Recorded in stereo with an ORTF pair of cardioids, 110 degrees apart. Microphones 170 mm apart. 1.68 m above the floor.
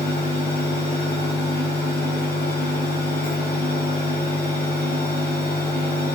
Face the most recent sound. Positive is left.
turn(degrees=65)